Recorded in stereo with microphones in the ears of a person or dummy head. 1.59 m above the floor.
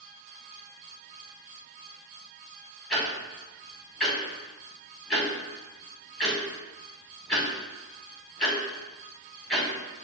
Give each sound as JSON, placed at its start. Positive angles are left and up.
{"t": 2.9, "sound": "ticking", "side_deg": 0, "distance_m": 0.9}